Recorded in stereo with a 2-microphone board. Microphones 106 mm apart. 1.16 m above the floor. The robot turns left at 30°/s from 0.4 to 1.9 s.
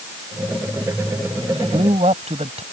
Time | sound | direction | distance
1.4 | a man speaking | 65° right (ahead or behind) | ?